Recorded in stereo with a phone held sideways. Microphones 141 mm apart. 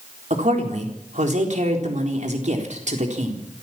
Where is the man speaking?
60° right (ahead or behind), 4 m.